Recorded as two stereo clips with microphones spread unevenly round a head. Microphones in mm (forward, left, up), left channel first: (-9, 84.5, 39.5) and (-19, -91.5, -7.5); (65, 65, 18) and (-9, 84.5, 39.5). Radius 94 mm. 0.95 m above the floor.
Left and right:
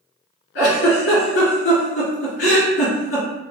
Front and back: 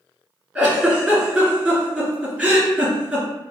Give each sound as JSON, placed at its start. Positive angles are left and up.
{"t": 0.6, "sound": "a giggle", "azimuth_deg": 100, "distance_m": 2.0}